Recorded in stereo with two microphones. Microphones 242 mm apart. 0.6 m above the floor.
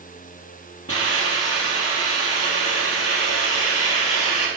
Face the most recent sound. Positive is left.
turn(degrees=70)  # may be behind; listen again after turning